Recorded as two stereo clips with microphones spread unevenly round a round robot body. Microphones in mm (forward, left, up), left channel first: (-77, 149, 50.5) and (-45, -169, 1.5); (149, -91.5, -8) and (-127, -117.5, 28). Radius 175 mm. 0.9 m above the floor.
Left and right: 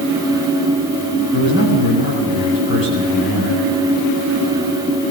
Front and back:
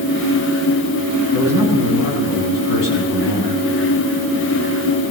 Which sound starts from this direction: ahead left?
A man speaking, at 1.3 s.